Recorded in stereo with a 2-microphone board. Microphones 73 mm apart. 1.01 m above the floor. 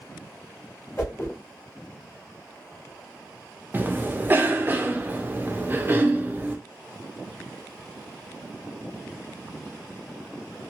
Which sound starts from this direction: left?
A whoosh, at 1.0 s.